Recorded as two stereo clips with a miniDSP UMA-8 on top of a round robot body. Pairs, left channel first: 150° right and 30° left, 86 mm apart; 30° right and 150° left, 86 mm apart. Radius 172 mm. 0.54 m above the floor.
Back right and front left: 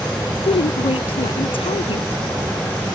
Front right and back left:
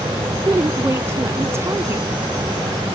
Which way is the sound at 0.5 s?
150° right.